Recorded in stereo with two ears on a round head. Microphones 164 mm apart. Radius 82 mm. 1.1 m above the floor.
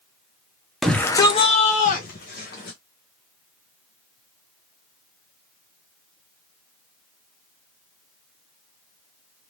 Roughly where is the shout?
Centre.